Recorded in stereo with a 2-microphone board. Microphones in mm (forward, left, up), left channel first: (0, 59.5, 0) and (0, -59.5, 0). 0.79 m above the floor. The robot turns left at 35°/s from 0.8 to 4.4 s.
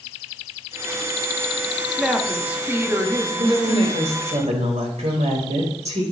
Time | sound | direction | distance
1.9 | a woman speaking | 5° left | 1.4 m
3.4 | a woman speaking | 55° right | 4 m